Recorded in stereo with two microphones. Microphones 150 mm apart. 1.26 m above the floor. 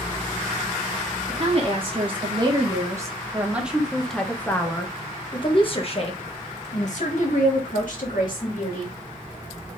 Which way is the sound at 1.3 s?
45° right (ahead or behind).